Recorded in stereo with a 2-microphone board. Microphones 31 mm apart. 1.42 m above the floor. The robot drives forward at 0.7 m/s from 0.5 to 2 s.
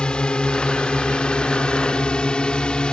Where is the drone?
30° left (ahead or behind).